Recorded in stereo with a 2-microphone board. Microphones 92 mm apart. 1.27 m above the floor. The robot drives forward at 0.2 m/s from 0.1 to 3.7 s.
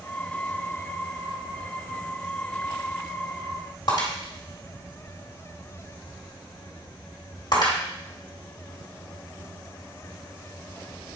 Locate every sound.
3.9 s breaking glass: 55° left (ahead or behind), 2 m